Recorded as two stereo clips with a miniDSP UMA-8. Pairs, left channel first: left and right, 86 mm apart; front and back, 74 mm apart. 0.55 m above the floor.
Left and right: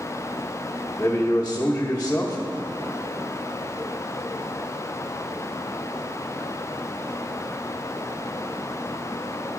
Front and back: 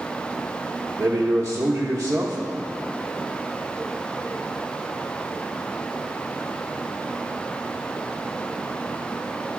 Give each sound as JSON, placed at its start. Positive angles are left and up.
{"t": 1.0, "sound": "a man speaking", "azimuth_deg": 155, "distance_m": 0.9}